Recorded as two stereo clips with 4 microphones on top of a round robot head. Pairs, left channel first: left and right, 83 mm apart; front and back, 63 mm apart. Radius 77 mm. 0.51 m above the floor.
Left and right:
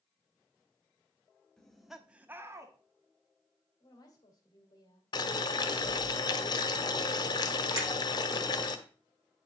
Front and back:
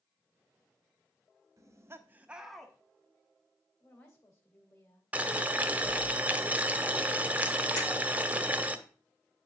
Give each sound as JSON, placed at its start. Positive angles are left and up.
{"t": 1.6, "sound": "laughter", "azimuth_deg": 170, "distance_m": 1.6}
{"t": 3.8, "sound": "a woman speaking", "azimuth_deg": 55, "distance_m": 2.5}
{"t": 5.1, "sound": "boiling", "azimuth_deg": 120, "distance_m": 1.2}
{"t": 7.8, "sound": "breaking glass", "azimuth_deg": -50, "distance_m": 6.0}